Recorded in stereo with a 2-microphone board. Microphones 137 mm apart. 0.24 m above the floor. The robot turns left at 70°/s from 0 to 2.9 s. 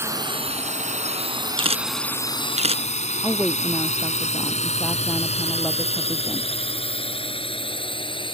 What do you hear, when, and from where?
0.0 s a drone: 15° right (ahead or behind); by 8.4 s 40° left (ahead or behind)
1.6 s a camera shutter: 40° right (ahead or behind)
3.2 s a woman speaking: centre (ahead or behind)